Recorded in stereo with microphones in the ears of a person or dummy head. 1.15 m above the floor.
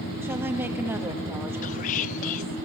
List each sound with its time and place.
0.2 s a woman speaking: 10° right (ahead or behind), 1.7 m
1.6 s whispering: 40° left (ahead or behind), 0.5 m